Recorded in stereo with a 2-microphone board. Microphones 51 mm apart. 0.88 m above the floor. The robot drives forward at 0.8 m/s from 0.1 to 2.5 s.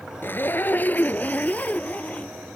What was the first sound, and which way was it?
A zipper, 40° left (ahead or behind).